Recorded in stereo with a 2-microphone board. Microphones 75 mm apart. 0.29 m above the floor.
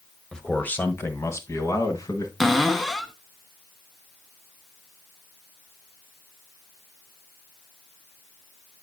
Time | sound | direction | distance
0.3 | a man speaking | 5° left (ahead or behind) | 1.0 m
2.4 | a cupboard door | centre (ahead or behind) | 0.8 m